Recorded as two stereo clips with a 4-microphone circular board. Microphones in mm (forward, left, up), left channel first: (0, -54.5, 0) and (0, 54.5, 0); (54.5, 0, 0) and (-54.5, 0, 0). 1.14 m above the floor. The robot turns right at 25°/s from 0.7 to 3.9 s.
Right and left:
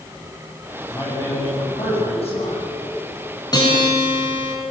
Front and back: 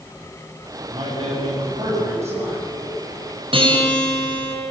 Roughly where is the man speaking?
Behind right.